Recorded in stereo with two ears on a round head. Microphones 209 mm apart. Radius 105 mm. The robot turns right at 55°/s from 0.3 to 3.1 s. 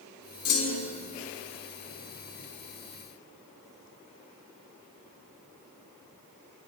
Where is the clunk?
70° left (ahead or behind), 1.3 m; by 0.9 s 50° left (ahead or behind), 1.3 m.